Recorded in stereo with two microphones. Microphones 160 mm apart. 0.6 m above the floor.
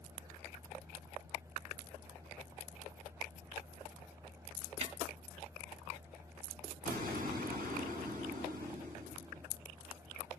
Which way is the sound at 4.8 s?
40° right (ahead or behind).